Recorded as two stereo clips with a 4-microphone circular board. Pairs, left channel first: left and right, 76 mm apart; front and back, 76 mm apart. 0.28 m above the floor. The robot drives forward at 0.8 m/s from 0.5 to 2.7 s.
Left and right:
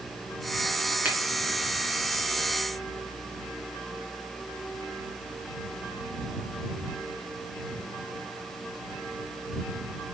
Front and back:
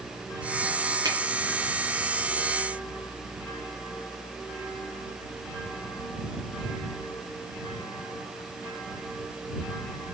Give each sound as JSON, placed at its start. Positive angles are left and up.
{"t": 1.1, "sound": "a finger snap", "azimuth_deg": -160, "distance_m": 2.5}